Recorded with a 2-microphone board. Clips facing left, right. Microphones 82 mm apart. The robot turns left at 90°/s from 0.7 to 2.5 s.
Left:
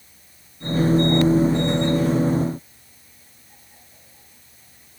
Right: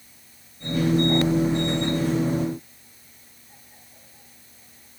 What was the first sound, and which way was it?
Only background noise.